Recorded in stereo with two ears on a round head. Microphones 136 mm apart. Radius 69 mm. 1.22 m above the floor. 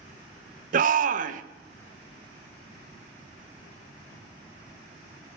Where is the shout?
60° right (ahead or behind), 0.7 m.